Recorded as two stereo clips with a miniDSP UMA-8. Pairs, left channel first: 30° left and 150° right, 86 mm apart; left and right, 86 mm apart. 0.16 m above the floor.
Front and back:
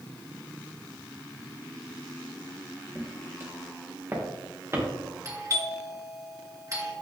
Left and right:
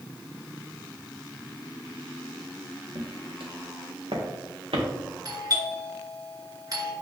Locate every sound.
3.0 s footsteps: 80° right, 2.5 m; by 4.8 s 95° right, 4 m
5.2 s a doorbell: 110° right, 2.5 m